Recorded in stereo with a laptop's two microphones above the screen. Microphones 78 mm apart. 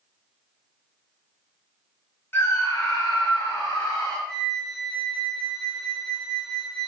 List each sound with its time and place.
2.3 s a scream: 30° left (ahead or behind), 1.0 m; by 4.2 s 70° left (ahead or behind), 3 m
4.3 s a flute: 5° left (ahead or behind), 0.5 m